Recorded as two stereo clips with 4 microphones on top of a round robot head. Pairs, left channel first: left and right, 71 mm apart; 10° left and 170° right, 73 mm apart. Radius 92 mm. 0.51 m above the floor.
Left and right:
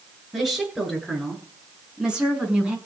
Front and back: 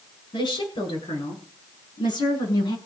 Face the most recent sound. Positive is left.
turn(degrees=-15)